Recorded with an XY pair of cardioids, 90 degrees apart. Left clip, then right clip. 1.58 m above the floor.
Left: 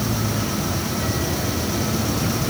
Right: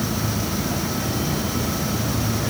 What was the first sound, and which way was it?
Only background noise.